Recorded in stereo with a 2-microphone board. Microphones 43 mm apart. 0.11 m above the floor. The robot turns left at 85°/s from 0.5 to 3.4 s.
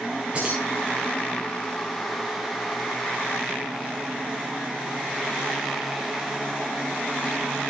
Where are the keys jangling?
25° right (ahead or behind), 7 m; by 0.6 s 15° right (ahead or behind), 7 m.